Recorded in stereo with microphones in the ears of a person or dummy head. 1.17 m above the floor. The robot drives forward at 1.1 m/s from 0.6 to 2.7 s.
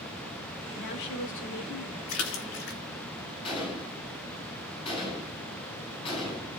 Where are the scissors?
I don't hear scissors.